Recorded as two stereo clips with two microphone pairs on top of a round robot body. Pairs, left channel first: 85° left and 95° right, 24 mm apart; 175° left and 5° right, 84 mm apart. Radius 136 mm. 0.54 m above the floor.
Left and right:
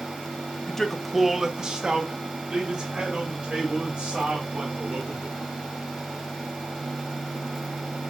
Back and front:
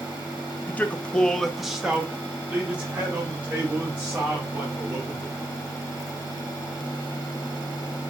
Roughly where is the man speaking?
Behind left.